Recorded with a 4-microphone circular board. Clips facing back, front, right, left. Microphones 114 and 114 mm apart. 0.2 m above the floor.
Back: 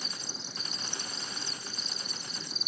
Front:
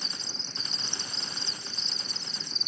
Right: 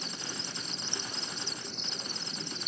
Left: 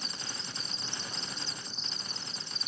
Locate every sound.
0.0 s an insect: 100° right